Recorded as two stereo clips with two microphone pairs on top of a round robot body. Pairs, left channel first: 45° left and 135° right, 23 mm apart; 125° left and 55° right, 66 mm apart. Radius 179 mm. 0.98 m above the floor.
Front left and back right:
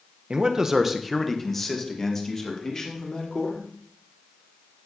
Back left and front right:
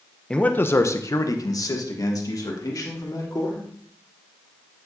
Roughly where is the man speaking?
Behind.